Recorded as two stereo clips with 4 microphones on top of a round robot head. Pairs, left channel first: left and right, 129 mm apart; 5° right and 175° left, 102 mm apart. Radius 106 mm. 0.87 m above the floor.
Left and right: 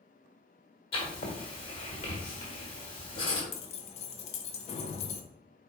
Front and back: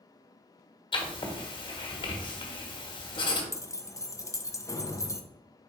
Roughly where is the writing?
Ahead left.